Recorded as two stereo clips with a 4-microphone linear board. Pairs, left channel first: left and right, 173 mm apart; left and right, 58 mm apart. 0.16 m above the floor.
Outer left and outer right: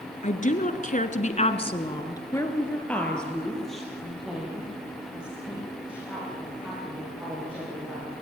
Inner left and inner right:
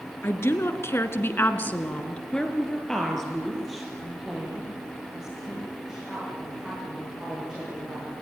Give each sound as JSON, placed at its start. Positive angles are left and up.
{"t": 0.2, "sound": "a woman speaking", "side_deg": 45, "distance_m": 2.5}